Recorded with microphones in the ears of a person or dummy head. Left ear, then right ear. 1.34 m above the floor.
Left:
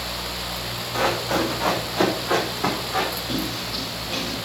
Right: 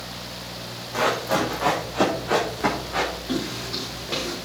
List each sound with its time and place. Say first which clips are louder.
0.9 s running footsteps: even; 5° right (ahead or behind), 3.5 m; by 3.1 s 5° left (ahead or behind), 5.5 m
3.3 s footsteps: left 1 dB; 30° right (ahead or behind), 5 m; by 4.4 s 35° right (ahead or behind), 4.5 m